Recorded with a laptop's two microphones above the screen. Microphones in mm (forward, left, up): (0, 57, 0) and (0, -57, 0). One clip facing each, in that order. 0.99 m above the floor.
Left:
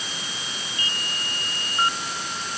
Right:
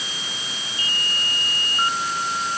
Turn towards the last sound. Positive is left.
No sound to turn to.